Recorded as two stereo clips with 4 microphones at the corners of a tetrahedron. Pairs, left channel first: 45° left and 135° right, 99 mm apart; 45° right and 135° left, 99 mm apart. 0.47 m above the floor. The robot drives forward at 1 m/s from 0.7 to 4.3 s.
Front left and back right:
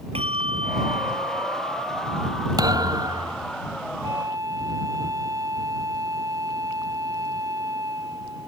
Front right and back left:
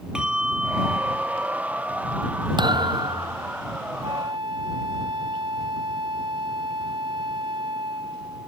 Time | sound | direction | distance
0.1 | a bell | 145° right | ?
2.6 | a thud | 175° left | ?
4.0 | a flute | 170° left | ?